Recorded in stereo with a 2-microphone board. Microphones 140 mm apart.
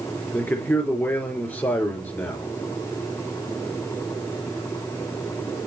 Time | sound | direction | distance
0.3 | a man speaking | 10° left (ahead or behind) | 3.5 m